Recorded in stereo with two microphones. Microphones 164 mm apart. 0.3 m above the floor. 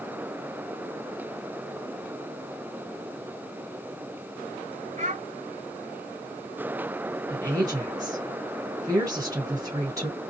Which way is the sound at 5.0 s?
45° right (ahead or behind).